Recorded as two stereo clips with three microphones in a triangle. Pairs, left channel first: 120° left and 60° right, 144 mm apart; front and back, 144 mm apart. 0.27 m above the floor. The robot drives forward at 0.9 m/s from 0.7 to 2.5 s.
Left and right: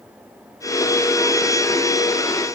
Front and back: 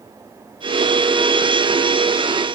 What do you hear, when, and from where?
Only background noise.